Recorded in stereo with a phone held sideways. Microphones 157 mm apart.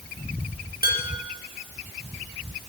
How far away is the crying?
No crying in this recording.